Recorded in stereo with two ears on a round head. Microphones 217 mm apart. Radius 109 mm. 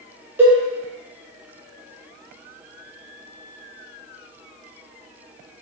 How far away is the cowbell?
About 1.3 m.